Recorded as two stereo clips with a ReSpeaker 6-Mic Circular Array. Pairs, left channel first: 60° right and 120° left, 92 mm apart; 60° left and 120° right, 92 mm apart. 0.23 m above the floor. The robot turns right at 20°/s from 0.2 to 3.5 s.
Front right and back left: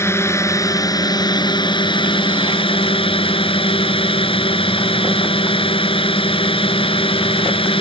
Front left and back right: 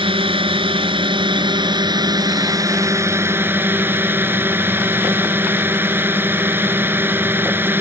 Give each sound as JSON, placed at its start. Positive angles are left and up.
{"t": 0.0, "sound": "a drone", "azimuth_deg": -120}